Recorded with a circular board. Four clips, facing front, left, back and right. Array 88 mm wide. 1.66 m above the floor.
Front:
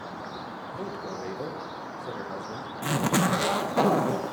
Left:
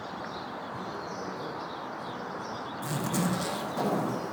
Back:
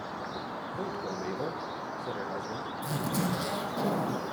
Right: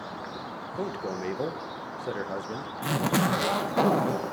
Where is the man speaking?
95° right, 1.4 m.